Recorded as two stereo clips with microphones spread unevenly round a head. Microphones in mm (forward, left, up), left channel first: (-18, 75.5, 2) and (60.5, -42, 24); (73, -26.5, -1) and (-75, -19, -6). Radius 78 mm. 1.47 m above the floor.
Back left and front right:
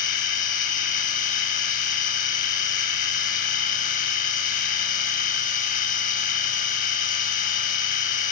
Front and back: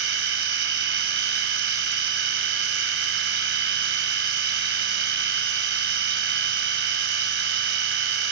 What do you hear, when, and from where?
0.0 s a machine running: 170° left, 4.5 m